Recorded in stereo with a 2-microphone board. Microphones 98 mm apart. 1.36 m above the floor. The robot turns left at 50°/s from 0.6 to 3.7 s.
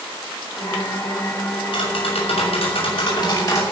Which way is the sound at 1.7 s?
125° left.